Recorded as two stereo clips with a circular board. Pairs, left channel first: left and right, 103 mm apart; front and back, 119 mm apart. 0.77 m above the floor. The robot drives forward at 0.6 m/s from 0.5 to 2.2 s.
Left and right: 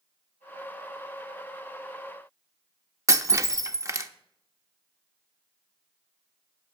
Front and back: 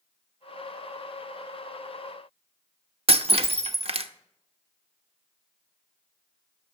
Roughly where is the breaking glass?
Behind right.